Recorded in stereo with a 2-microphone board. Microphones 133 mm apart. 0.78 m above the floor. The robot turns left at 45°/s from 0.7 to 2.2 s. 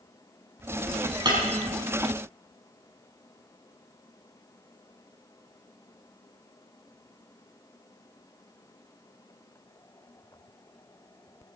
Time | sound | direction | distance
1.2 | breaking glass | 35° right (ahead or behind) | 4 m